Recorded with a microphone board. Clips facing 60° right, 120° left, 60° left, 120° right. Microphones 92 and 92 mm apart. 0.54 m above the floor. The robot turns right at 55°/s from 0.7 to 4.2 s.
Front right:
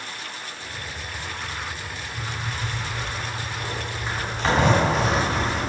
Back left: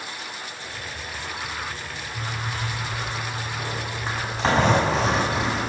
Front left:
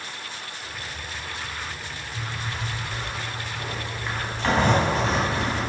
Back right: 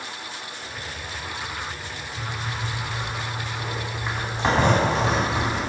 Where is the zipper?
60° left, 3.5 m; by 5.6 s 175° left, 3.5 m.